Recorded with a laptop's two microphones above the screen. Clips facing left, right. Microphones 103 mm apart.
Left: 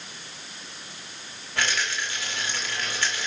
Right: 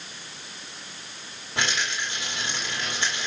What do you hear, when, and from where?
1.6 s a rattle: 20° right (ahead or behind), 2.5 m